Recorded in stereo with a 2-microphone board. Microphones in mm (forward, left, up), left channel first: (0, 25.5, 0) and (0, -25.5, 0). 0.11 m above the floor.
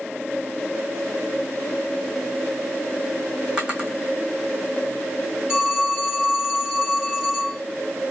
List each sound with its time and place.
3.6 s a drawer: 20° right (ahead or behind), 1.9 m
5.5 s a phone ringing: 10° right (ahead or behind), 2 m